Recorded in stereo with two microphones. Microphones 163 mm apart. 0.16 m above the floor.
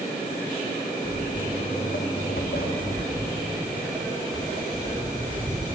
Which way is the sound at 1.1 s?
50° left (ahead or behind).